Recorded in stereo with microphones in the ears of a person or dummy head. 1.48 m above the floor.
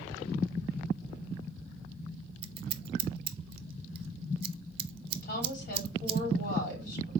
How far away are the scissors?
About 0.6 m.